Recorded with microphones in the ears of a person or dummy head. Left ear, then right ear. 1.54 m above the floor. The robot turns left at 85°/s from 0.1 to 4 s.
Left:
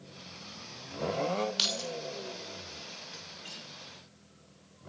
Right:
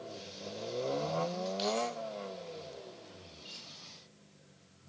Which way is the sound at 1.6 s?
50° left (ahead or behind).